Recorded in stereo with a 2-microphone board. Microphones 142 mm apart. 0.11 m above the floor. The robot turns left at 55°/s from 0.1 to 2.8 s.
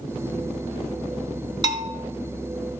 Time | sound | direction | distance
1.6 | a bell | 35° right (ahead or behind) | 1.1 m